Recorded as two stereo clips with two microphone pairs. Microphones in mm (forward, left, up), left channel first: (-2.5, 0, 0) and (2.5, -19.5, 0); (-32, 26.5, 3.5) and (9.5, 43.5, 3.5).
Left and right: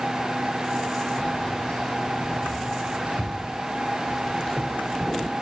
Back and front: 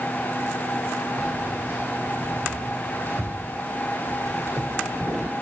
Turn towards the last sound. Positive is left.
turn(degrees=20)